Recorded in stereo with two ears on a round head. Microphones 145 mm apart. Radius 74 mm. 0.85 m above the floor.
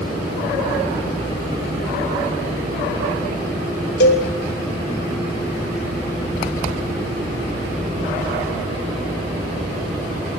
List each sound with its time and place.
4.0 s a cowbell: 75° left (ahead or behind), 2.5 m